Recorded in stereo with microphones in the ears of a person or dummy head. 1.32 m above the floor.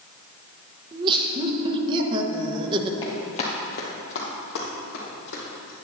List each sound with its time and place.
0.9 s laughter: 30° right (ahead or behind), 1.2 m
3.0 s running footsteps: 30° left (ahead or behind), 1.9 m; by 5.7 s 65° left (ahead or behind), 4 m